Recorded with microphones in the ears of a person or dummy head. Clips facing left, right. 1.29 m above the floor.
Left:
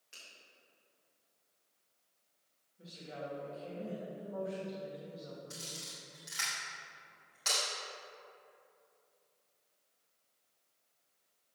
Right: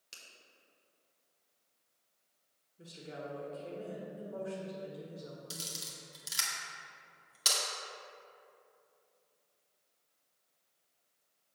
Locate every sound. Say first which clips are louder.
0.1 s a finger snap: right 1 dB; 50° right (ahead or behind), 1.9 m
2.8 s a woman speaking: even; 35° right (ahead or behind), 1.5 m
5.5 s a camera shutter: right 1 dB; 50° right (ahead or behind), 1.7 m